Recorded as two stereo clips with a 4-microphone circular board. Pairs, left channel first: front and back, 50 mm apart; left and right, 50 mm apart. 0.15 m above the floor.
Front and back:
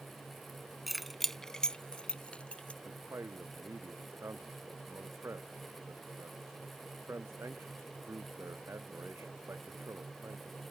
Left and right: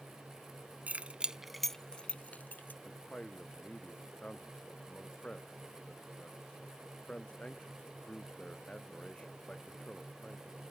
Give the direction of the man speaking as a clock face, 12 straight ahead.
7 o'clock.